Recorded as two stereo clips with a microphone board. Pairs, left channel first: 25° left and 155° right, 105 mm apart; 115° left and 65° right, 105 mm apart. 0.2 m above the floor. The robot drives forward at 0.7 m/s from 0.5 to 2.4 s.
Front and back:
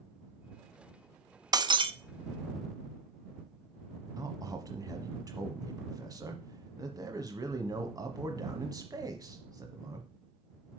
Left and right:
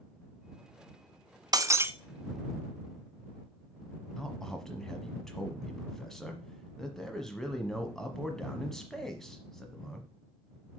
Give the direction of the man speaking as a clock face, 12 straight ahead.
5 o'clock.